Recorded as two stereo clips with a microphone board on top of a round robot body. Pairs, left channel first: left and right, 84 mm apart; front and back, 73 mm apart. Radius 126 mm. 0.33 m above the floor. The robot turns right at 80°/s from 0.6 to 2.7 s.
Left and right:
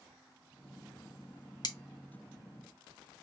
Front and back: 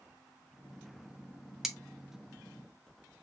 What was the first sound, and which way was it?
Cutlery clinking, 95° left.